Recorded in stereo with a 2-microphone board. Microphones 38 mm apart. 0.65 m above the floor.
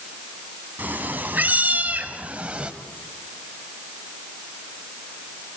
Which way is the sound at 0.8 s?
60° right (ahead or behind).